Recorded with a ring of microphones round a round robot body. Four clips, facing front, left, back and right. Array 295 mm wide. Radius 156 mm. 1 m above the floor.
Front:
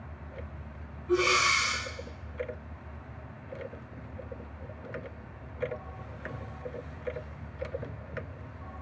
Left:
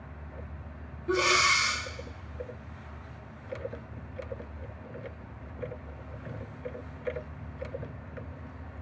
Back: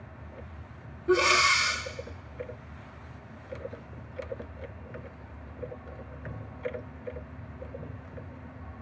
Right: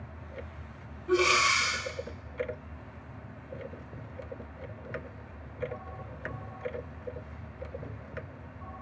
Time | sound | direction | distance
1.1 | breathing | 165° left | 1.8 m